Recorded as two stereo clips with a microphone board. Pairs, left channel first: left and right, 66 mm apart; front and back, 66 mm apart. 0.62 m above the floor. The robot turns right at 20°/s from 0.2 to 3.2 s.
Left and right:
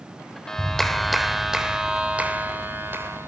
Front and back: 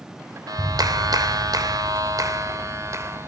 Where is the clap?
170° left, 2.5 m; by 3.3 s 135° right, 2.5 m.